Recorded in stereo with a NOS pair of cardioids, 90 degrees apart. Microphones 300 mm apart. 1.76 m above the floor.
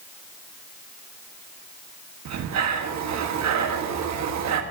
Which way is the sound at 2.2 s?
65° right.